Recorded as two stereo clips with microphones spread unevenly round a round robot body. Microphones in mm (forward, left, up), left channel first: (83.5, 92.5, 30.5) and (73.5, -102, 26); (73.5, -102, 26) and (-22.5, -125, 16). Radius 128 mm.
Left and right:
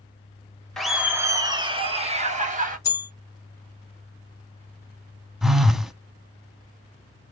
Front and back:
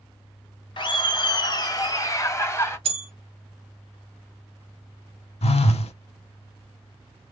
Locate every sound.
0.8 s laughter: straight ahead, 1.1 m; by 2.8 s 50° right, 1.8 m
2.9 s a bell: 165° left, 1.0 m
5.4 s a phone buzzing: 5° right, 0.7 m